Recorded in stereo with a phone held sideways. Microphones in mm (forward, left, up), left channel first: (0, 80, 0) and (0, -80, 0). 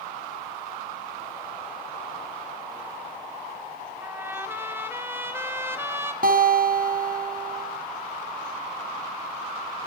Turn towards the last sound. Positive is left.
turn(degrees=-65)  # may be behind; listen again after turning